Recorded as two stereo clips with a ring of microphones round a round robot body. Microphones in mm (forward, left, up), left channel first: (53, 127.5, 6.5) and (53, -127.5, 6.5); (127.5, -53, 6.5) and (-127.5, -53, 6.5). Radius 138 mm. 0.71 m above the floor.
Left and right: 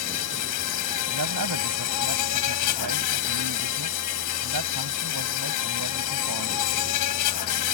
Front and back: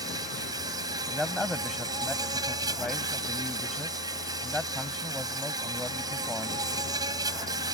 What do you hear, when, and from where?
0.0 s an insect: 105° left
1.1 s a man speaking: 90° right